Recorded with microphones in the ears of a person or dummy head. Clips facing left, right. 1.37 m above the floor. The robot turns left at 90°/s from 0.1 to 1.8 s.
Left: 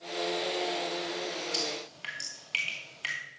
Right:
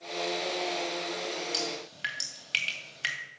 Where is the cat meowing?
I don't hear a cat meowing.